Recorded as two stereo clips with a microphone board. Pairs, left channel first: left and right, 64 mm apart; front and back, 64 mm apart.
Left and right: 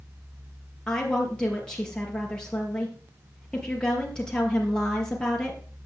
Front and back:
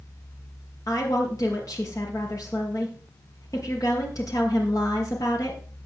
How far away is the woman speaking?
About 3.5 m.